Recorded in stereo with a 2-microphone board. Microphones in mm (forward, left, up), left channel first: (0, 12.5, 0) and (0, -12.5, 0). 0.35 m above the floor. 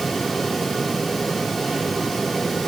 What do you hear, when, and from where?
Only background noise.